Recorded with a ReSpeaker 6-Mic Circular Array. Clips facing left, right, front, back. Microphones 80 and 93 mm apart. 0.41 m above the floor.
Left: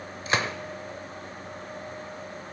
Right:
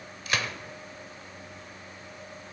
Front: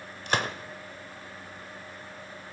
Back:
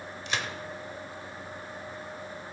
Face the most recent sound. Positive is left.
turn(degrees=30)